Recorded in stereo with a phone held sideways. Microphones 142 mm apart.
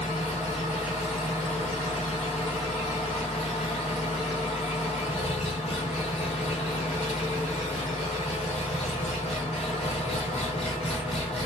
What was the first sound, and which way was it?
An engine running, 45° left (ahead or behind).